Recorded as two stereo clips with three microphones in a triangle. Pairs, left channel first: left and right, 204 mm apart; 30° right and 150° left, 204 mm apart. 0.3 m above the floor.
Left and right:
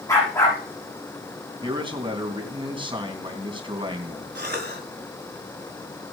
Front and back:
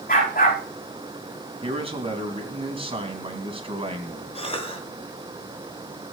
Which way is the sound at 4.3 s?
85° right.